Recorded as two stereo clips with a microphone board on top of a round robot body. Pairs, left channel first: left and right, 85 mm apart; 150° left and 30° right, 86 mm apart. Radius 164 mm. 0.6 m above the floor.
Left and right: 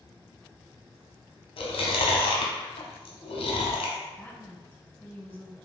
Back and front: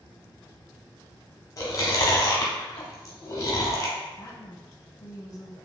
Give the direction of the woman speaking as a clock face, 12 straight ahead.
7 o'clock.